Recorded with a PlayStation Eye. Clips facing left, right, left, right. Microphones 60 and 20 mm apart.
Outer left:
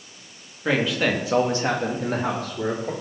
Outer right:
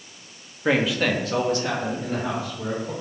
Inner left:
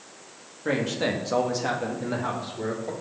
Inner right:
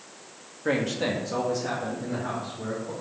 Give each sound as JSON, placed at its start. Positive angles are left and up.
{"t": 0.7, "sound": "a man speaking", "side_deg": -10, "distance_m": 1.4}